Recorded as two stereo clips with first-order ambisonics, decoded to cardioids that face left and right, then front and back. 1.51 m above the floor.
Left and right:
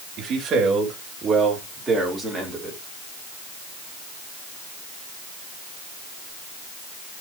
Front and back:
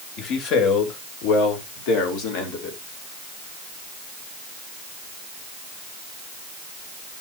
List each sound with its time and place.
0.2 s a man speaking: 30° right, 3 m; by 2.8 s straight ahead, 3.5 m